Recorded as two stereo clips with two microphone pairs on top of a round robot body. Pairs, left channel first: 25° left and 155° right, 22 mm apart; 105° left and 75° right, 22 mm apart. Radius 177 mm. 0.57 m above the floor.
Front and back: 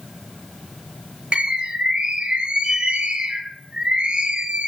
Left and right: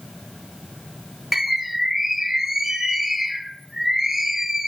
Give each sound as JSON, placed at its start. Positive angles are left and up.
{"t": 1.3, "sound": "a bird", "azimuth_deg": -145, "distance_m": 1.7}